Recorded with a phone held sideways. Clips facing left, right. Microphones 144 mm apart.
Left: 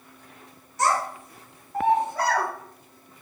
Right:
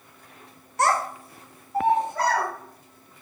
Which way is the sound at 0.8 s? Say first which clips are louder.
Right 1 dB; 60° right (ahead or behind).